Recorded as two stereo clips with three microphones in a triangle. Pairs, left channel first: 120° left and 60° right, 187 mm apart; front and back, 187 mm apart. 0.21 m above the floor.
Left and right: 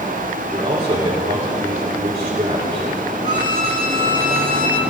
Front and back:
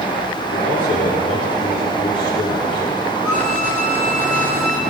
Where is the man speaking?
5° right, 4 m.